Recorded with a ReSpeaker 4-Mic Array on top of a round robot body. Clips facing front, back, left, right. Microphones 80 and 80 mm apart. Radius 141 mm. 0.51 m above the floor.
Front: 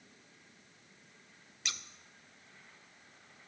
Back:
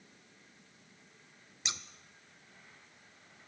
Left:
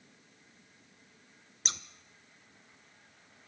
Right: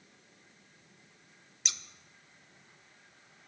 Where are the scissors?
120° left, 0.6 m.